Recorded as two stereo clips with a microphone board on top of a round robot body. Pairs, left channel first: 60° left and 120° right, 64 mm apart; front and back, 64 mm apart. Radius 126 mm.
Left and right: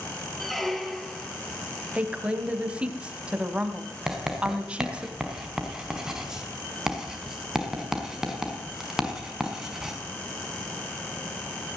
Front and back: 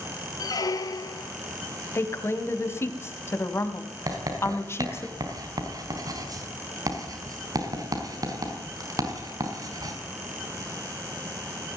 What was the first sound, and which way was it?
A squeak, 30° right.